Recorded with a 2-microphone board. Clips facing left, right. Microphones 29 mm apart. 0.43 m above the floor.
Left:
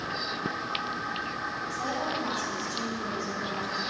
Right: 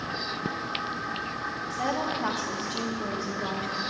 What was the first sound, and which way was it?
A woman speaking, 55° right (ahead or behind).